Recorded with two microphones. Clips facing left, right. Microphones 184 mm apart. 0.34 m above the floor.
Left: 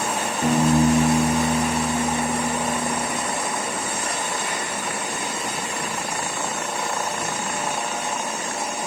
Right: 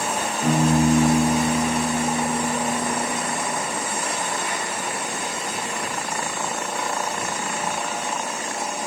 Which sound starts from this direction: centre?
A piano, at 0.4 s.